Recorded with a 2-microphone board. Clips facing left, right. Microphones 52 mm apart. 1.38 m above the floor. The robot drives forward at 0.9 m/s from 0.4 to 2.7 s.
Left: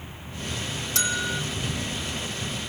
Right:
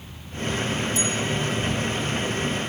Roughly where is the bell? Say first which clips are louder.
Right 2 dB; left.